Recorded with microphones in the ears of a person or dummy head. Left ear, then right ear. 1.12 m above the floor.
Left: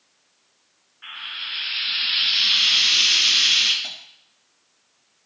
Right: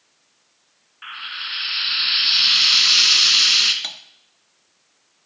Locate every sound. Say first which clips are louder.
1.0 s frying: right 2 dB; 70° right (ahead or behind), 3 m
3.8 s cutlery clinking: right 3 dB; 45° right (ahead or behind), 1.3 m